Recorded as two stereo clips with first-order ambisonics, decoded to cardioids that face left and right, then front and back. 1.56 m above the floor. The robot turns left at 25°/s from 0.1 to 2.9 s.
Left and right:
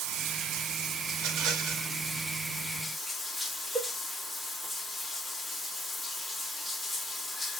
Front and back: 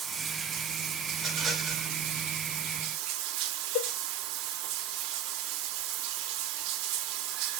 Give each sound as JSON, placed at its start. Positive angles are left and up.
{"t": 0.0, "sound": "running water", "azimuth_deg": -115, "distance_m": 0.8}
{"t": 1.1, "sound": "a rattle", "azimuth_deg": -95, "distance_m": 1.6}
{"t": 3.8, "sound": "a cowbell", "azimuth_deg": -10, "distance_m": 0.8}